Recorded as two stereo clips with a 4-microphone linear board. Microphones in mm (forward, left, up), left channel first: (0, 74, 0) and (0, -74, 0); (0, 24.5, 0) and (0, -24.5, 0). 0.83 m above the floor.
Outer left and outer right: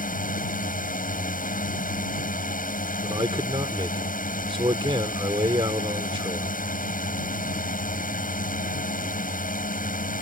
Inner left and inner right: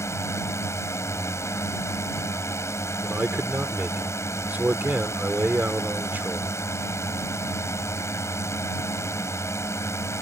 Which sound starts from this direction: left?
A drone, at 0.0 s.